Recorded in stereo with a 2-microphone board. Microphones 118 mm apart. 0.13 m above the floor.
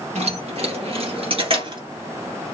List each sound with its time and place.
0.1 s keys jangling: 65° right (ahead or behind), 2.5 m; by 1.8 s 40° right (ahead or behind), 1.5 m